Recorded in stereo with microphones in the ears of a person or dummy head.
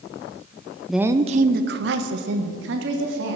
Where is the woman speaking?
Centre (ahead or behind), 0.6 m; by 3.4 s 70° right (ahead or behind), 2.5 m.